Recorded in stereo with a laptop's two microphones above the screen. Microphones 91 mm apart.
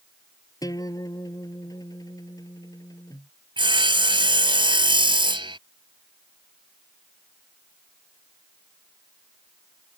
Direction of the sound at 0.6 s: 40° left (ahead or behind).